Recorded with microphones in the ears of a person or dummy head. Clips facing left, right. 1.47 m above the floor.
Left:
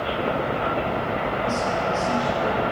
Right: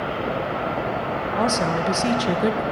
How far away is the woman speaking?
About 1.0 m.